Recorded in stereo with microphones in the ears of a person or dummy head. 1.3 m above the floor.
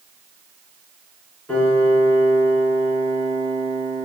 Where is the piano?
5° left (ahead or behind), 3.5 m.